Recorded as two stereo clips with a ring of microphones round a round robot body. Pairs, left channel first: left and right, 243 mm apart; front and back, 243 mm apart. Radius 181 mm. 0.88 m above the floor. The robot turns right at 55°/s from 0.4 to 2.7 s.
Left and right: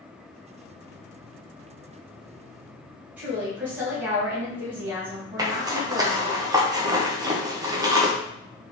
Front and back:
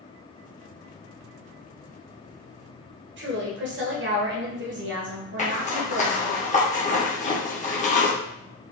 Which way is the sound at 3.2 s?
170° right.